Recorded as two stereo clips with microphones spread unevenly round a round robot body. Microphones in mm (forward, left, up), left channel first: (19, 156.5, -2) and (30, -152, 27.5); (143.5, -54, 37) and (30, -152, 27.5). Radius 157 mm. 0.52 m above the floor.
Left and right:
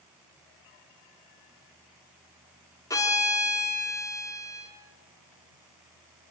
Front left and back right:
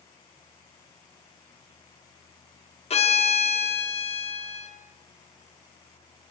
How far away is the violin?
About 1.3 m.